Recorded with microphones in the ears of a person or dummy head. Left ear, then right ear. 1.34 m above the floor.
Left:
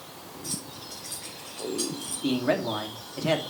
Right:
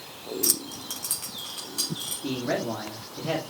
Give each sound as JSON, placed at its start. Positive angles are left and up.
{"t": 0.4, "sound": "keys jangling", "side_deg": -60, "distance_m": 0.9}
{"t": 2.2, "sound": "a man speaking", "side_deg": 75, "distance_m": 2.0}